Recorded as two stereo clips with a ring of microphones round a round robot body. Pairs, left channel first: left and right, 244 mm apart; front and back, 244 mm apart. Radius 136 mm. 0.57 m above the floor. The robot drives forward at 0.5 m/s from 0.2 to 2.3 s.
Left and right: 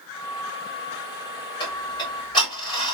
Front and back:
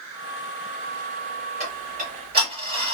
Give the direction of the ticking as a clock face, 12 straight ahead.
7 o'clock.